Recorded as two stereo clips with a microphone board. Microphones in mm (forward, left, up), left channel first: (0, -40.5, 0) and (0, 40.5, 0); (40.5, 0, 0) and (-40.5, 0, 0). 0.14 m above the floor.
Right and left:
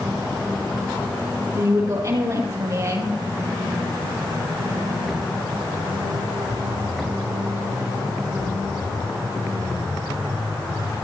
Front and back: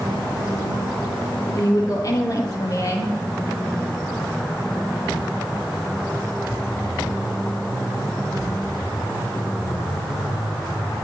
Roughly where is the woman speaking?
Ahead left.